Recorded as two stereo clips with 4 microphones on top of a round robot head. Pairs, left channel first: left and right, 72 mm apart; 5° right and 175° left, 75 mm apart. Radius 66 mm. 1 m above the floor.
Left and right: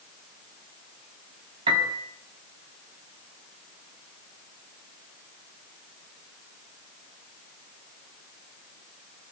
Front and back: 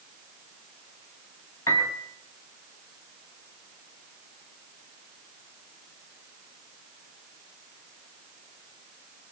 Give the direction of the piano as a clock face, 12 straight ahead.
2 o'clock.